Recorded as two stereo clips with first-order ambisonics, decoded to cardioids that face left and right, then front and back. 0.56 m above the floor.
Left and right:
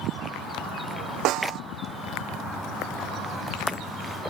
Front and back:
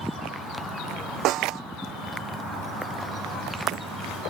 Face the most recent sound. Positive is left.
turn(degrees=-135)